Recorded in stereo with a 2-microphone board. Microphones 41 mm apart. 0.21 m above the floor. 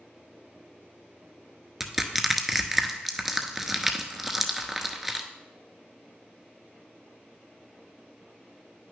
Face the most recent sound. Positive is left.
turn(degrees=-10)  # may be behind; listen again after turning